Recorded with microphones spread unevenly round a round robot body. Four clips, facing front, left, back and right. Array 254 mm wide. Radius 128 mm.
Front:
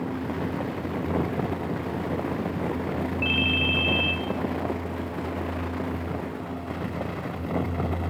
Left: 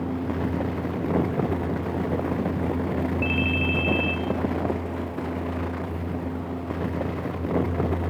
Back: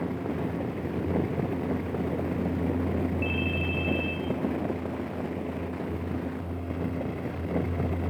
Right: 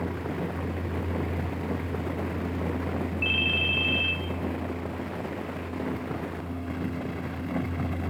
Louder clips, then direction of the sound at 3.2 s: Left 6 dB, front 3 dB; 20° left.